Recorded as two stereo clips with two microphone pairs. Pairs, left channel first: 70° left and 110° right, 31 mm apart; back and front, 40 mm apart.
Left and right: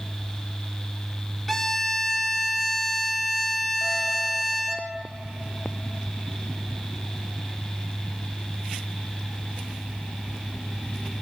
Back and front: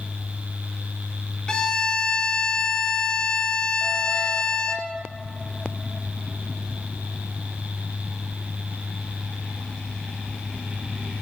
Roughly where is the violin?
Behind.